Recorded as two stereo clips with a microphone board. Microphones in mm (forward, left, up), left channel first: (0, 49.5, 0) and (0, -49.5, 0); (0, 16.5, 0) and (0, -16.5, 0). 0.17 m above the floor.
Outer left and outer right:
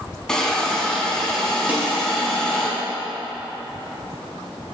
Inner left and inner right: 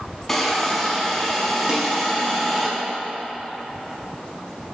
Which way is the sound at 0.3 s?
5° left (ahead or behind).